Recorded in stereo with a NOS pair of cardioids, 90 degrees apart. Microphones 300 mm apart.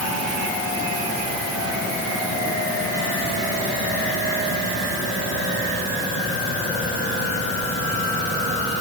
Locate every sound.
Only background noise.